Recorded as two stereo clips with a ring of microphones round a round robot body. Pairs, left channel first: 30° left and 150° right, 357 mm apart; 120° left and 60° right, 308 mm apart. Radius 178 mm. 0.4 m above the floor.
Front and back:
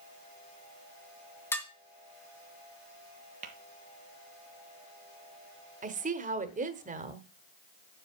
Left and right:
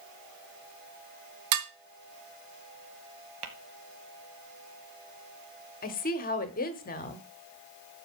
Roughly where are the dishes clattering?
Ahead right.